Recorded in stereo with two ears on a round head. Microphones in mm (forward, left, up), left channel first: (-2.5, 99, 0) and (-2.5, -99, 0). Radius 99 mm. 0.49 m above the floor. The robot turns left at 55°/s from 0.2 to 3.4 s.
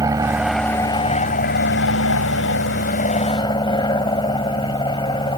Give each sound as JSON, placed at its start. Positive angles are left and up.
{"t": 0.0, "sound": "an aircraft", "azimuth_deg": -160}